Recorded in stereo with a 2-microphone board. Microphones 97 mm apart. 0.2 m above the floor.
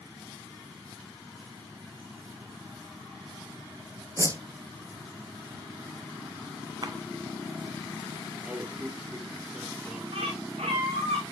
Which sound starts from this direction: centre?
A man speaking, at 8.4 s.